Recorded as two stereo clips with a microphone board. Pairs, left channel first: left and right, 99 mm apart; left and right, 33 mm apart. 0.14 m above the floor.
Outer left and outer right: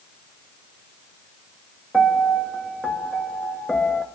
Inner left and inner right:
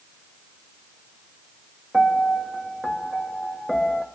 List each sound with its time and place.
1.9 s a piano: centre (ahead or behind), 0.6 m